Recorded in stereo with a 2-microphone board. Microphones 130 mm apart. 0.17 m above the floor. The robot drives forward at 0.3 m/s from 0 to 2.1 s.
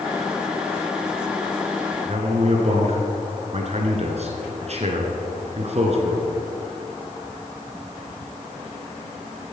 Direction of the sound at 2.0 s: 55° right (ahead or behind).